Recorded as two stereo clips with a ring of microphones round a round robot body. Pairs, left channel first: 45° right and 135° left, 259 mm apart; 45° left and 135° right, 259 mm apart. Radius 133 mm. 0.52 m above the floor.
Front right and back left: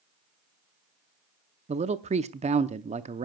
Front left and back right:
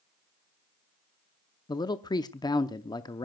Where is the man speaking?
105° left, 0.7 m.